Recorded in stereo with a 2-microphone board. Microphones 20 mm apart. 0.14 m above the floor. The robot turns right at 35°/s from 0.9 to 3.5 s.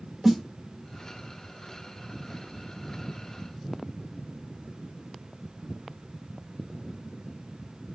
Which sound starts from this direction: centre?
A snare drum, at 0.2 s.